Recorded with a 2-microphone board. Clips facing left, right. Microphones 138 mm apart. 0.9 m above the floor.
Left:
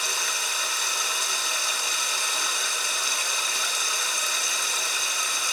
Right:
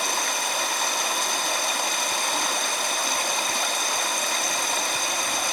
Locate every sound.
0.0 s running water: 60° right (ahead or behind), 1.4 m